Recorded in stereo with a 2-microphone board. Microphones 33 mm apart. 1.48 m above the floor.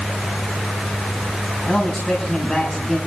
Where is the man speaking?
20° left (ahead or behind), 5.5 m.